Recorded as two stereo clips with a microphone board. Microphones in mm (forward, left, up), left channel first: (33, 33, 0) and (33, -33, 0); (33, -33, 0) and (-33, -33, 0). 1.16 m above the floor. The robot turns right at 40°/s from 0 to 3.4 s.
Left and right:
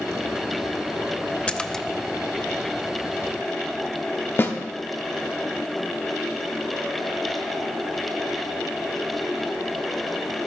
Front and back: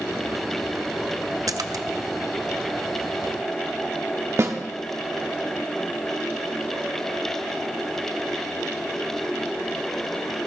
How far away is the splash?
About 0.6 m.